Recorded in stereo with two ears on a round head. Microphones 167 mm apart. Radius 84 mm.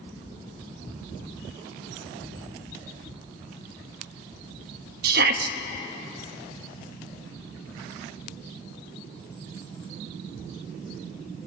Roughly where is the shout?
Right.